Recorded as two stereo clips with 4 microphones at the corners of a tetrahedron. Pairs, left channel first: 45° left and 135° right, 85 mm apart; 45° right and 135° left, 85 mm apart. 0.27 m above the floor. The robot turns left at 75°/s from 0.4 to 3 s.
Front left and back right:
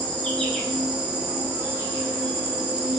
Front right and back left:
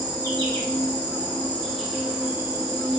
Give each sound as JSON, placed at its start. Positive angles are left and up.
{"t": 0.0, "sound": "an insect", "azimuth_deg": -25, "distance_m": 1.1}